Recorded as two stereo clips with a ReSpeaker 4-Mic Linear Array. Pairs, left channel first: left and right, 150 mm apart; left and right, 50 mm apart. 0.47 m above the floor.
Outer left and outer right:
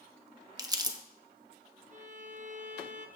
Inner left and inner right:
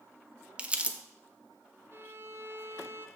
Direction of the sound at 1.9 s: 50° right (ahead or behind).